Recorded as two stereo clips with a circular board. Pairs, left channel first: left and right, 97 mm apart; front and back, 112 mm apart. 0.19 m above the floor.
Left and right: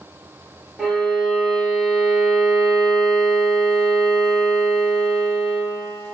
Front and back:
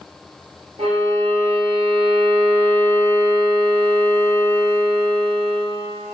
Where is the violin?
Straight behind, 2.5 m.